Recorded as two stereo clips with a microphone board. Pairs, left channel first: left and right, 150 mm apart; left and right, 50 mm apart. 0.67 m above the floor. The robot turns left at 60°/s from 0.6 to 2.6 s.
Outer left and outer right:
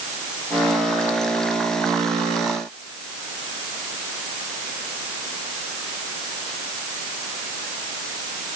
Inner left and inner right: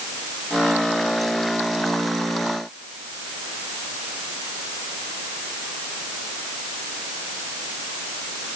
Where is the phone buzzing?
No phone buzzing in this recording.